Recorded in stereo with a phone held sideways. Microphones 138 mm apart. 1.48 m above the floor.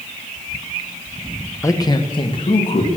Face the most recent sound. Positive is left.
turn(degrees=45)  # may be behind; listen again after turning